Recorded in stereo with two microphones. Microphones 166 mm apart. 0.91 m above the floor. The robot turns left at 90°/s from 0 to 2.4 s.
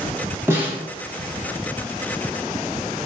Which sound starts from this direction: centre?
A snare drum, at 0.5 s.